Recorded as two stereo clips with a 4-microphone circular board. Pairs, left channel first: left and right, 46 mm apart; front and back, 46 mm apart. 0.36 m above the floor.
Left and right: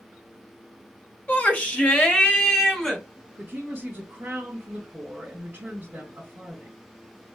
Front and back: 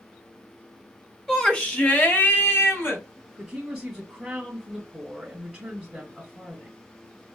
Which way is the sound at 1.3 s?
65° left.